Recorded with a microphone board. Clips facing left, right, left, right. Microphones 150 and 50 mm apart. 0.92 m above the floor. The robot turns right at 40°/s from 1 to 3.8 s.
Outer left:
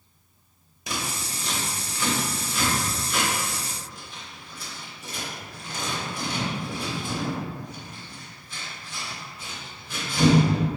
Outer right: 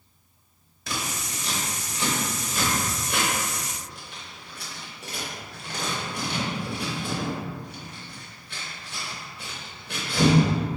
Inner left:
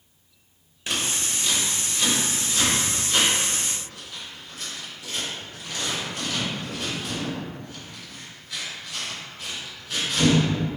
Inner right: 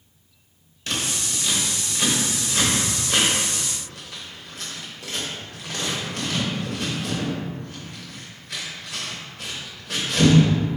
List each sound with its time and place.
0.9 s scissors: 15° left (ahead or behind), 0.8 m; by 10.4 s 65° right (ahead or behind), 0.8 m